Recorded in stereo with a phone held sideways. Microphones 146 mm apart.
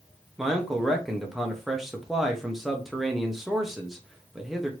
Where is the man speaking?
Centre (ahead or behind), 0.6 m.